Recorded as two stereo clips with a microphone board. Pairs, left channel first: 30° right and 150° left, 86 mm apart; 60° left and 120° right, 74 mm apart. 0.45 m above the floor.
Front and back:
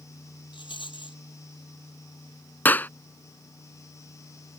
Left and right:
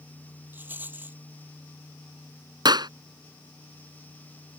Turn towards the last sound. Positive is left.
turn(degrees=-100)